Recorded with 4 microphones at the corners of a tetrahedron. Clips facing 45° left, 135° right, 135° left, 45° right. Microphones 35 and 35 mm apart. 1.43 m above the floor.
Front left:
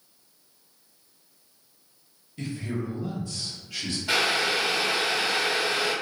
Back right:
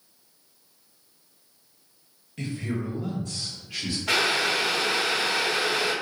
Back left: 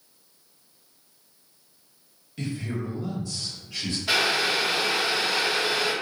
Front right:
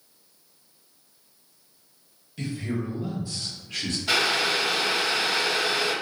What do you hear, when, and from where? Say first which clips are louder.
2.4 s a man speaking: back right 1 dB, front right 1 dB; 145° right, 1.5 m; by 4.0 s 60° right, 0.8 m
4.1 s boiling: back right 1 dB, even; 140° right, 1.1 m